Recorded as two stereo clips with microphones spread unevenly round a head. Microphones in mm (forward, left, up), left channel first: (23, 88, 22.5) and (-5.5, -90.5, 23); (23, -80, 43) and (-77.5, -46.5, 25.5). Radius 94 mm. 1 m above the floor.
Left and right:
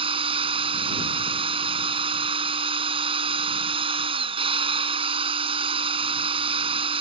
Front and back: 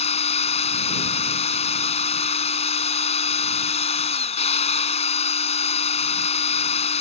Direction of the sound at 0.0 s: 35° right.